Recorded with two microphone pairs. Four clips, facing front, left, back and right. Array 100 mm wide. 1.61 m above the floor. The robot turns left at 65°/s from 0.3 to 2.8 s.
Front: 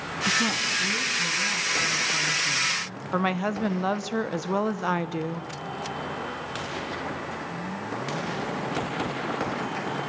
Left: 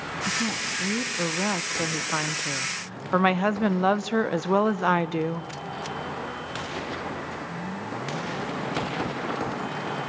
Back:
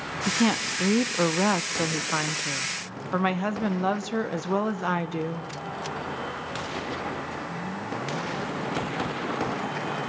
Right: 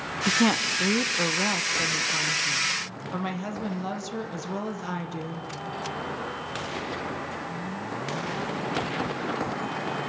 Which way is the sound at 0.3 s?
110° right.